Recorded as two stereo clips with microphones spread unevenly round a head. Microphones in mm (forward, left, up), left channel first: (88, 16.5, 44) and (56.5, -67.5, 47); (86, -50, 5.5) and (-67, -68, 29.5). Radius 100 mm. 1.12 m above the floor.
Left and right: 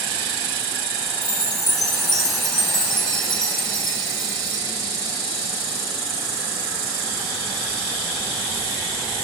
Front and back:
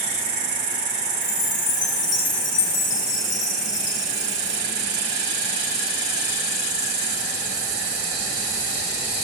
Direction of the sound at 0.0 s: 160° left.